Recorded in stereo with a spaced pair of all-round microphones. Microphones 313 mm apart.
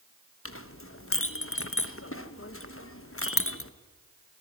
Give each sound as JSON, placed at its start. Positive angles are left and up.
{"t": 0.5, "sound": "a clink", "side_deg": 40, "distance_m": 1.2}